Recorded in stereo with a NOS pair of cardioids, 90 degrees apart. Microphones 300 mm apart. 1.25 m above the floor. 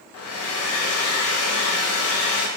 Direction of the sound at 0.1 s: 55° left.